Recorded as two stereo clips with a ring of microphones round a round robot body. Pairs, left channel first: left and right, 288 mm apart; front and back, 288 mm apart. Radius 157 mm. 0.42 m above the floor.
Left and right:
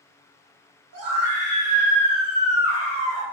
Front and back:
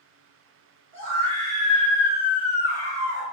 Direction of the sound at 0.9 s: 65° right.